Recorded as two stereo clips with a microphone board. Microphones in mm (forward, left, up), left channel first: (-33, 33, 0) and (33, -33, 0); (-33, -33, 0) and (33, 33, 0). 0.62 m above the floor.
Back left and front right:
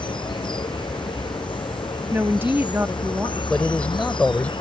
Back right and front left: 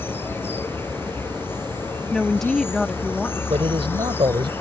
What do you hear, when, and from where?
0.0 s an insect: 160° left
2.1 s a woman speaking: 55° right
3.5 s a man speaking: 60° left